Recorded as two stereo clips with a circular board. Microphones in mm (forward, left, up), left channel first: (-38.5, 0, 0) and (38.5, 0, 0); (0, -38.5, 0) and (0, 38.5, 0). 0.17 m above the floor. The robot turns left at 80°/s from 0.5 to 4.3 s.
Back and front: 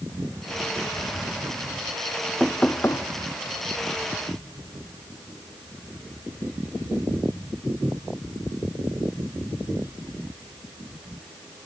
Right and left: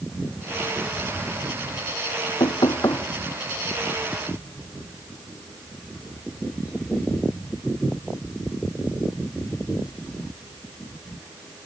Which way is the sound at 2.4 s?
90° right.